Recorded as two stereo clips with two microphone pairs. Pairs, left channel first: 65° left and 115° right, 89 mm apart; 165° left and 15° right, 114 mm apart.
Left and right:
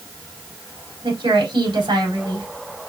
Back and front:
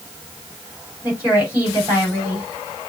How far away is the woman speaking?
About 4.5 m.